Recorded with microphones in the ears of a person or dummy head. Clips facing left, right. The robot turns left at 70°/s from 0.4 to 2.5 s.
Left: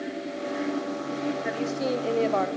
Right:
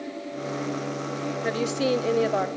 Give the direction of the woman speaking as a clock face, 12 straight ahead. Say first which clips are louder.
Right 3 dB; 3 o'clock.